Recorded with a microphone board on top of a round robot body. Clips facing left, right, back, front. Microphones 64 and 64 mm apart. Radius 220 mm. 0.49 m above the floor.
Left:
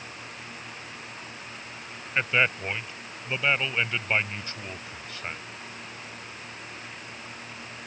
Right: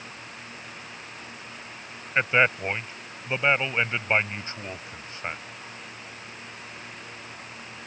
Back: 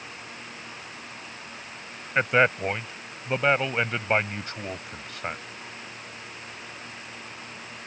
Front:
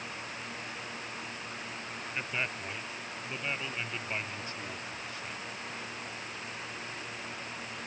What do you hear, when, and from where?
2.1 s a man speaking: 155° right